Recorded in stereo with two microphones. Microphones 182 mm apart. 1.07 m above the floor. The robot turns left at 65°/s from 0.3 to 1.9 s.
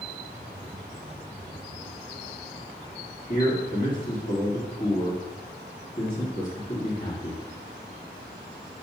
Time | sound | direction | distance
3.3 | a man speaking | 40° left (ahead or behind) | 2.5 m